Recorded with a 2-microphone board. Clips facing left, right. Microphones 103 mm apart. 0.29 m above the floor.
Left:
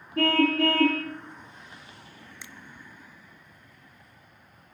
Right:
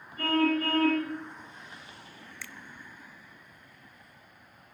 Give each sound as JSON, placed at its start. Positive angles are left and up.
{"t": 0.2, "sound": "a car horn", "side_deg": 85, "distance_m": 4.5}
{"t": 2.4, "sound": "a finger snap", "side_deg": 20, "distance_m": 0.9}